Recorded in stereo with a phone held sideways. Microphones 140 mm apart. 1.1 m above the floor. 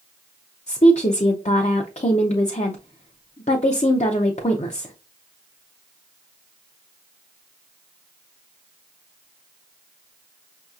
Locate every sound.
0.7 s a woman speaking: 50° left (ahead or behind), 0.5 m